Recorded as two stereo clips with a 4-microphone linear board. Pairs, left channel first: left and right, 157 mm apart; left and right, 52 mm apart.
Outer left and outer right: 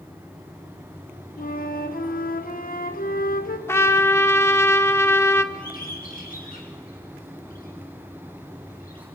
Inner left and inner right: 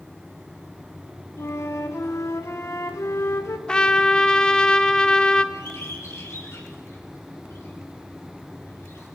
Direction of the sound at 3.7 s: 15° left (ahead or behind).